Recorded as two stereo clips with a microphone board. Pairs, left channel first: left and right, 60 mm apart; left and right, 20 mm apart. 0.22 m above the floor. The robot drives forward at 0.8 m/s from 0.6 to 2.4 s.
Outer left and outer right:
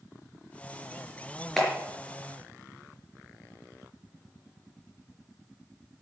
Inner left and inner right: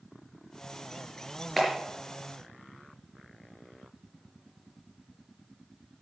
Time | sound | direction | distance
1.6 | a clap | 5° left (ahead or behind) | 3.5 m